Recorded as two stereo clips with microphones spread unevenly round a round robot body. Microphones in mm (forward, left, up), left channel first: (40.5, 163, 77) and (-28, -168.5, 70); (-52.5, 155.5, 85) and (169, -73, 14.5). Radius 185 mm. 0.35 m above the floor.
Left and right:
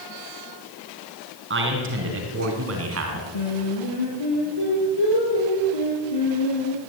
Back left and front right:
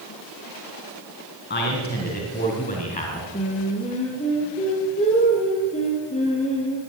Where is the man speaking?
160° right, 5 m; by 3.2 s 150° right, 4.5 m.